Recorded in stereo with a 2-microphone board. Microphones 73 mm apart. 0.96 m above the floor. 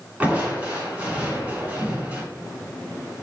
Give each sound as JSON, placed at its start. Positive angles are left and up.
{"t": 0.2, "sound": "crushing", "side_deg": -20, "distance_m": 3.0}